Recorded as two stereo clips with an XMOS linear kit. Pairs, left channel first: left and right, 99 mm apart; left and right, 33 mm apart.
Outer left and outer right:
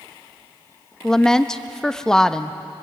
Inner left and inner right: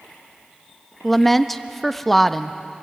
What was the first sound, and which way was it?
A woman speaking, 5° left (ahead or behind).